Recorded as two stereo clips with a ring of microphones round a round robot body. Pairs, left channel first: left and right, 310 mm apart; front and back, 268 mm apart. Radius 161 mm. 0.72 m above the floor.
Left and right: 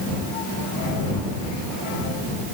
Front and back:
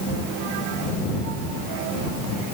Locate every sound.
Only background noise.